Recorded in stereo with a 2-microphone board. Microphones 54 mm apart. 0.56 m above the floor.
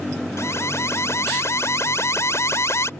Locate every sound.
0.4 s an alarm: 60° left (ahead or behind)